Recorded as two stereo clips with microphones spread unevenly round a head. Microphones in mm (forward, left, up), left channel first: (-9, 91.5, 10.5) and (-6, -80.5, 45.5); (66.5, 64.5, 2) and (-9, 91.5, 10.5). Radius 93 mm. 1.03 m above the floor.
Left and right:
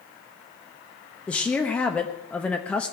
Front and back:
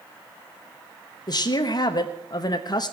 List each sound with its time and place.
1.3 s a woman speaking: 10° left, 1.0 m